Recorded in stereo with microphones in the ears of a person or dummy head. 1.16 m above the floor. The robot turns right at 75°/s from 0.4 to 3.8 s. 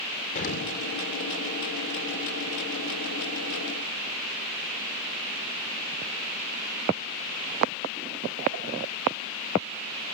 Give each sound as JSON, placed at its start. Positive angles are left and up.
{"t": 0.3, "sound": "an explosion", "side_deg": 45, "distance_m": 4.0}